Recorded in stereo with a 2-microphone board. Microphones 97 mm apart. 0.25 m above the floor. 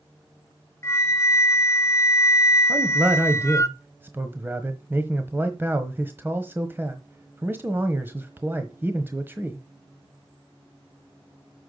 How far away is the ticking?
No ticking in this recording.